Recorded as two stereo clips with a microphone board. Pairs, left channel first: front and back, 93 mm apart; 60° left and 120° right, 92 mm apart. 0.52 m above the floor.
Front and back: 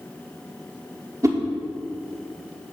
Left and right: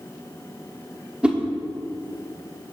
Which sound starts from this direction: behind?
A whoosh, at 1.2 s.